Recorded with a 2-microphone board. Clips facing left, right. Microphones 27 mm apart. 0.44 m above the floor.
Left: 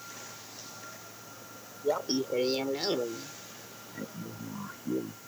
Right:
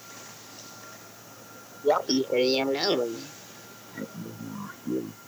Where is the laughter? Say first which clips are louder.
Right 6 dB; 40° right (ahead or behind); by 5.2 s 5° right (ahead or behind).